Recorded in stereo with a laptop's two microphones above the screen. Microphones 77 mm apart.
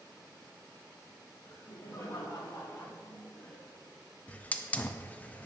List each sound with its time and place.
1.4 s laughter: 50° left (ahead or behind), 2 m; by 3.7 s 10° left (ahead or behind), 1.0 m
4.3 s a hiss: 20° left (ahead or behind), 0.6 m